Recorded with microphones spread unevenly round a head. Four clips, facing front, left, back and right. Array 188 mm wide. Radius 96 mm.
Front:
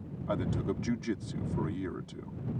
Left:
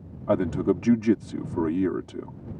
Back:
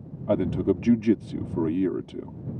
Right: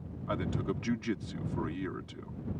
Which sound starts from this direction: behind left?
A man speaking, at 0.3 s.